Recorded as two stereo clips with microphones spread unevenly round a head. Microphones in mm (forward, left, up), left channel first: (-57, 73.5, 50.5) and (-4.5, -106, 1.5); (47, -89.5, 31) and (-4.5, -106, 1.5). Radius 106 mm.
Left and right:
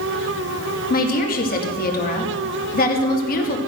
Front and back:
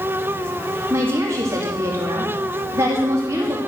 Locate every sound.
0.9 s a woman speaking: 155° left, 2.5 m